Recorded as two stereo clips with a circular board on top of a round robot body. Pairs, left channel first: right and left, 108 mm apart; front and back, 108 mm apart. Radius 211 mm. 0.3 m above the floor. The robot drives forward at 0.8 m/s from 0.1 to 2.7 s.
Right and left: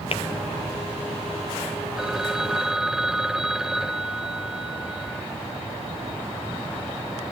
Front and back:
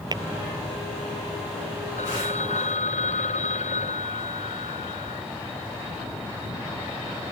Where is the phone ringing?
5° left.